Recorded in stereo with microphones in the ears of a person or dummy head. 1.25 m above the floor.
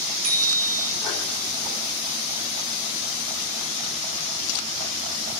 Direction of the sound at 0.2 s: 85° right.